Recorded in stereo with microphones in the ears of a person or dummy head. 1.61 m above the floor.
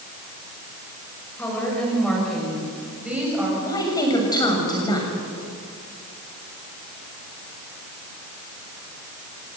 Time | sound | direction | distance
1.4 | a woman speaking | 10° left (ahead or behind) | 6.5 m
3.6 | a woman speaking | 20° left (ahead or behind) | 7 m